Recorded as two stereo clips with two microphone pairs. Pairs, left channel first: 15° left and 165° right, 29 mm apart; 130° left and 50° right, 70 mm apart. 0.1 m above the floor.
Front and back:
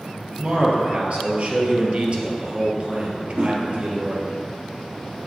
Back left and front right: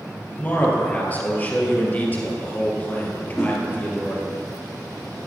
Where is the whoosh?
165° right, 4.5 m.